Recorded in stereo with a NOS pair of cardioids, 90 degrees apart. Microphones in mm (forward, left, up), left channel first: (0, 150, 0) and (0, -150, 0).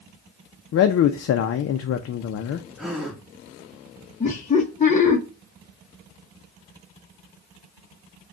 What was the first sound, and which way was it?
A man speaking, 50° left.